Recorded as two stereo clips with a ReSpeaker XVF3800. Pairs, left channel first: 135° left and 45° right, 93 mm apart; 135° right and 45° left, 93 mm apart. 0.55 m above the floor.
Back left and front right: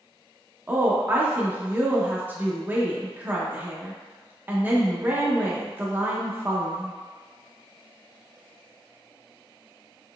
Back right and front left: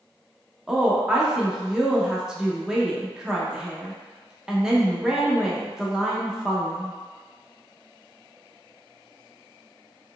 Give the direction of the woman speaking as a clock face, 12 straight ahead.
1 o'clock.